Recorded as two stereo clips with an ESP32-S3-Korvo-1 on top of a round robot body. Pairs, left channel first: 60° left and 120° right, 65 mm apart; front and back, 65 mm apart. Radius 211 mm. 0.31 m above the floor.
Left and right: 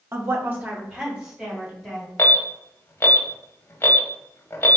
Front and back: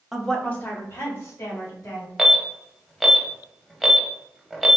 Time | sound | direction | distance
0.1 | a woman speaking | 90° right | 1.1 m
2.2 | an alarm | 90° left | 1.1 m